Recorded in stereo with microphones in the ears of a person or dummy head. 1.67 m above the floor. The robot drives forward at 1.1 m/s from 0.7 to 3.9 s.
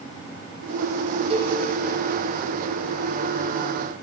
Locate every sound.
1.3 s a cowbell: 35° right (ahead or behind), 2.5 m; by 1.6 s 40° right (ahead or behind), 2 m